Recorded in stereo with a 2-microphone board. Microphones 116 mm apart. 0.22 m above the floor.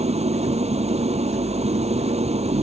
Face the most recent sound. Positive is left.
turn(degrees=-70)  # may be behind; listen again after turning